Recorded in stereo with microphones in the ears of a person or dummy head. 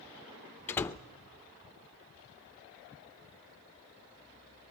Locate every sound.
0.7 s a door slam: 10° left (ahead or behind), 0.6 m